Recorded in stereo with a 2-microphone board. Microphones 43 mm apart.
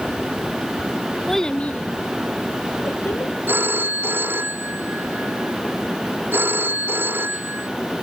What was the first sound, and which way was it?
A child speaking, centre (ahead or behind).